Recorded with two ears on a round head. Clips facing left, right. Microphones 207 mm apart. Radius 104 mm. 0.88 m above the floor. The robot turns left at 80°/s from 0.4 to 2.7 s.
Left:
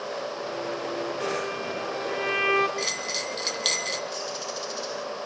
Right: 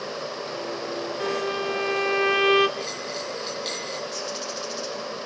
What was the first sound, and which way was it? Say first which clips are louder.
A violin: right 3 dB; 25° right.